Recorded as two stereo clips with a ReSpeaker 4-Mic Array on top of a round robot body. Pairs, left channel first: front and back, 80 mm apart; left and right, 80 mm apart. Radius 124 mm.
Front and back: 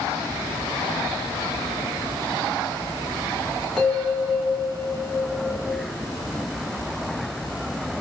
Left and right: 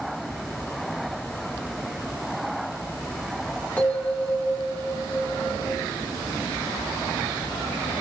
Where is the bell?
80° left, 1.2 m.